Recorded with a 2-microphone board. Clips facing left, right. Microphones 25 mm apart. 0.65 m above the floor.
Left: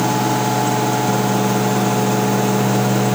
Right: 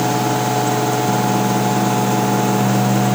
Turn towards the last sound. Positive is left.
No sound to turn to.